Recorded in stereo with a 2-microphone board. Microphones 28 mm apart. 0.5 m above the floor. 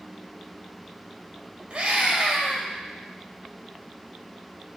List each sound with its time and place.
1.7 s a scream: 35° right (ahead or behind), 2 m